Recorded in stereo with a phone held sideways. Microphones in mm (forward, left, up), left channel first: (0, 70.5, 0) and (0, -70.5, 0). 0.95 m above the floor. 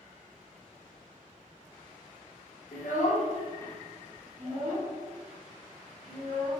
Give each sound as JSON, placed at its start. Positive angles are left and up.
{"t": 2.7, "sound": "a child speaking", "side_deg": 70, "distance_m": 0.9}